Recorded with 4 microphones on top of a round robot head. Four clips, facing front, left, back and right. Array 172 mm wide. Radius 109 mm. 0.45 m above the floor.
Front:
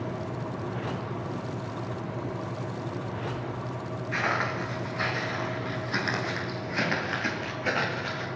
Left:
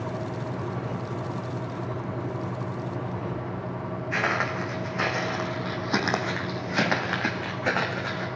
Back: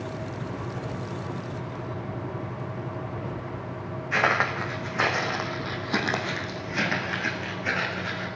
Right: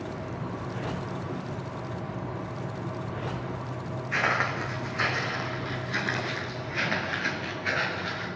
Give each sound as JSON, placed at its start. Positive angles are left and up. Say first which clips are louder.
{"t": 4.1, "sound": "footsteps", "louder": "even, back 5 dB", "azimuth_deg": 175, "distance_m": 2.5}